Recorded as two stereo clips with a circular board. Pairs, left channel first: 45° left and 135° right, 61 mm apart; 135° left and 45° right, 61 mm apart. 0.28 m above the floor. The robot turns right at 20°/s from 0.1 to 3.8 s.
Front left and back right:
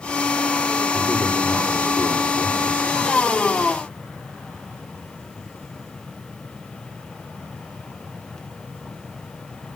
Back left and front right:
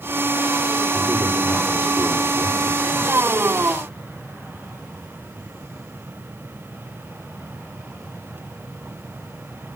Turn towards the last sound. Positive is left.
turn(degrees=15)